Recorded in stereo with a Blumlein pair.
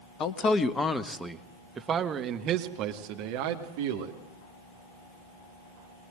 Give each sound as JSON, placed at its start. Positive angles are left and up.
{"t": 0.2, "sound": "a man speaking", "azimuth_deg": 25, "distance_m": 1.6}